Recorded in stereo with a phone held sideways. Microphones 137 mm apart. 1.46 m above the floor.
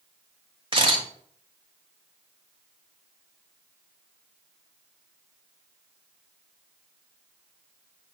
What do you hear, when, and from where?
0.7 s a camera shutter: 40° right (ahead or behind), 1.8 m